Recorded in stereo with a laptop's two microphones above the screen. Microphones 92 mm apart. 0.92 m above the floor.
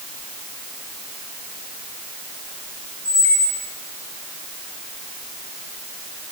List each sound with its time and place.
3.0 s a squeak: 20° left (ahead or behind), 1.5 m